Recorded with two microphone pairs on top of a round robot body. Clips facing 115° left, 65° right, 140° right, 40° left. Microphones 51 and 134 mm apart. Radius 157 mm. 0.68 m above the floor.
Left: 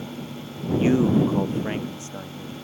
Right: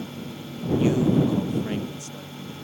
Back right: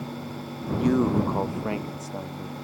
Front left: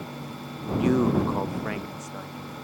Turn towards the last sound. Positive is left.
turn(degrees=175)